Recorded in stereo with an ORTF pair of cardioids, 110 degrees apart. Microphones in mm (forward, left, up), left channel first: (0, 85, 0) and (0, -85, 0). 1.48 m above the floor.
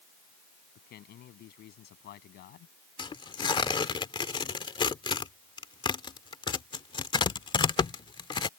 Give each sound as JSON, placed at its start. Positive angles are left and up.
{"t": 0.8, "sound": "a man speaking", "azimuth_deg": 65}
{"t": 3.0, "sound": "tearing paper", "azimuth_deg": 30}